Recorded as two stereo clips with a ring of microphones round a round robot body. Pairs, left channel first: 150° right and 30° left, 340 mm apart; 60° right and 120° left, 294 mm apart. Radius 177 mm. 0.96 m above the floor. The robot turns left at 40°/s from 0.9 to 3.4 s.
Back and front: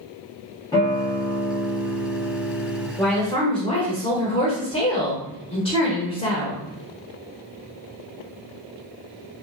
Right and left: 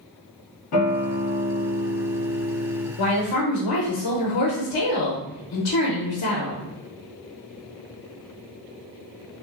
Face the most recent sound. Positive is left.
turn(degrees=-75)